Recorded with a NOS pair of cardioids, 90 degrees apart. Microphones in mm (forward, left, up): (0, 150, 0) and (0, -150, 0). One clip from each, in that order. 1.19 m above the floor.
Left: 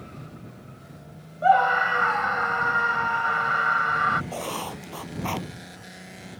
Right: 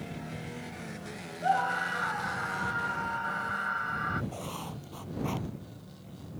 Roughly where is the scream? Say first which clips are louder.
Left 9 dB; left.